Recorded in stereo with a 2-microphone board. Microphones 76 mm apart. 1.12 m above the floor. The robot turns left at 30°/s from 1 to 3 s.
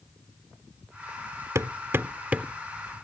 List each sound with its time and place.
1.6 s hammering: 45° right (ahead or behind); by 2.5 s 15° right (ahead or behind)